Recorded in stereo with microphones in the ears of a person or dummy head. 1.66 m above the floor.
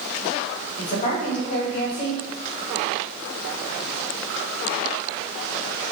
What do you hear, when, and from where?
0.8 s a woman speaking: 40° left (ahead or behind), 1.3 m